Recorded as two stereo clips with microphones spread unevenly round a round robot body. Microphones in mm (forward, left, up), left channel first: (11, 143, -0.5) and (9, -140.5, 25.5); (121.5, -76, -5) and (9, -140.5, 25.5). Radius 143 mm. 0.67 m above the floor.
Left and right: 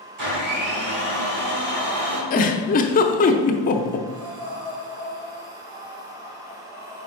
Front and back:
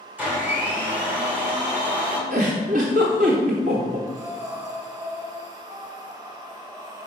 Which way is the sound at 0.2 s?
65° right.